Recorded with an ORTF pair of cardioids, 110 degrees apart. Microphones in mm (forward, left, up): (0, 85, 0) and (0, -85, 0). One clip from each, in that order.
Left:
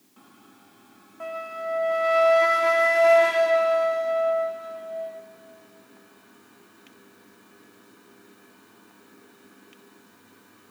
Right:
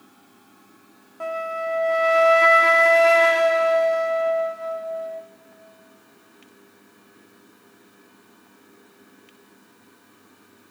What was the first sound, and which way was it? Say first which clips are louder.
A flute: right 5 dB; 20° right.